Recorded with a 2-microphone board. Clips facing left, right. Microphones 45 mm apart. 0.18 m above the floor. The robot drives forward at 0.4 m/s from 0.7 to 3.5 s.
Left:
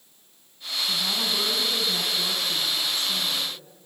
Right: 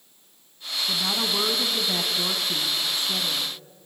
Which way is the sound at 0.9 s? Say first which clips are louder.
Right 1 dB; 25° right (ahead or behind).